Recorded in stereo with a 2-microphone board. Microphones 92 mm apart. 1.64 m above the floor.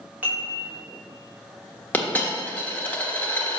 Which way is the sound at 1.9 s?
15° left (ahead or behind).